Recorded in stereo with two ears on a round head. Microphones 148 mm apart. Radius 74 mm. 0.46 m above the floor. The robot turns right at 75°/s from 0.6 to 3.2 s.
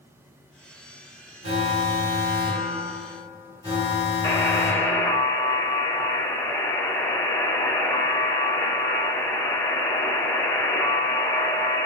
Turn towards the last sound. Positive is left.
turn(degrees=20)  # may be behind; listen again after turning